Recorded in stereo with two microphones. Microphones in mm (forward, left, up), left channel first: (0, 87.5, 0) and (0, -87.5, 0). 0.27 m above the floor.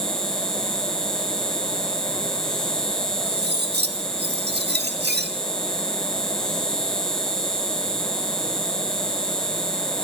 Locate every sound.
0.0 s an insect: 5° left (ahead or behind), 5 m
3.3 s cutlery clinking: 70° right (ahead or behind), 2.5 m